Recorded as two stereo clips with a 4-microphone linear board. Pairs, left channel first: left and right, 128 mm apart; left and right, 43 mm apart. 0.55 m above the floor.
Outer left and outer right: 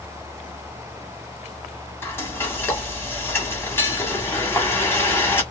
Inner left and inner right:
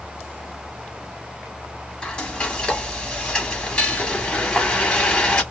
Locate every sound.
2.0 s frying: 20° left (ahead or behind), 1.4 m